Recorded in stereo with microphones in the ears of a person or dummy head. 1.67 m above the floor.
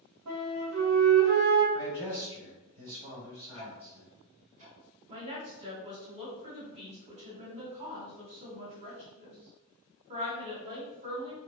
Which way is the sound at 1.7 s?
20° right (ahead or behind).